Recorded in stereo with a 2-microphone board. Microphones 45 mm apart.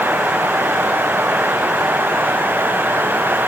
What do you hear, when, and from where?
Only background noise.